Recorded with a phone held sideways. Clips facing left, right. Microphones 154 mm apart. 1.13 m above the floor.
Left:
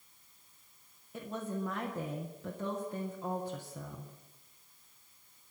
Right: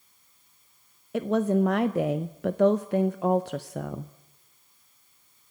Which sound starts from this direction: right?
A woman speaking, at 1.1 s.